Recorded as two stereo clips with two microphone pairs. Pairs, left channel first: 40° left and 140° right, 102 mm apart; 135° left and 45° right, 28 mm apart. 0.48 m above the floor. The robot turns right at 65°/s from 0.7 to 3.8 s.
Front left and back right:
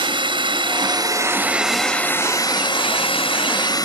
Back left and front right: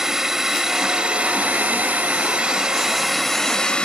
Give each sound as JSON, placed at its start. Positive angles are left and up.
{"t": 0.0, "sound": "a drone", "azimuth_deg": -115}